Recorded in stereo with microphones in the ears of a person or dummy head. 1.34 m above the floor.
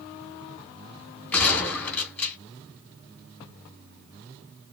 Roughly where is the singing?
I don't hear singing.